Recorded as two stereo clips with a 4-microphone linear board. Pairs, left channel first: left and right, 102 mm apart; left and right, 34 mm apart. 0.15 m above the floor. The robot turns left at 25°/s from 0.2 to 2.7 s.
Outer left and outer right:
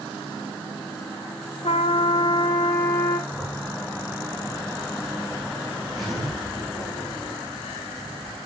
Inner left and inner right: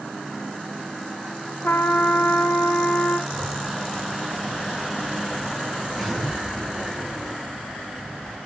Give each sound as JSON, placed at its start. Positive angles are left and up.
{"t": 1.6, "sound": "a trumpet", "side_deg": 70, "distance_m": 1.7}
{"t": 3.3, "sound": "a zipper", "side_deg": 0, "distance_m": 7.0}